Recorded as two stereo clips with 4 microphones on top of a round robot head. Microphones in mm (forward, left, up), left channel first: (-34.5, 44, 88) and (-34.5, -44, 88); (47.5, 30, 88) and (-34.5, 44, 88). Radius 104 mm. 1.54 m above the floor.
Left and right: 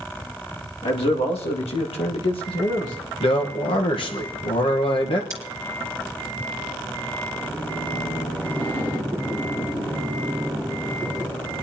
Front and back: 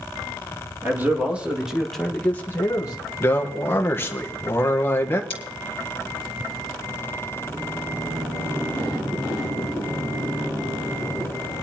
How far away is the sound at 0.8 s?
About 2.5 m.